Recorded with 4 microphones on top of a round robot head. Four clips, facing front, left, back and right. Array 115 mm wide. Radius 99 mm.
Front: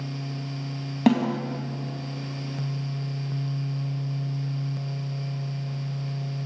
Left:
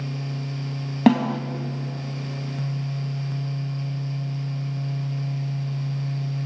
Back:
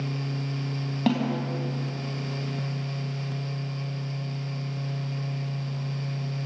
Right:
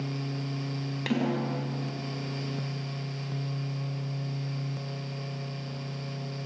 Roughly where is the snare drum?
Left.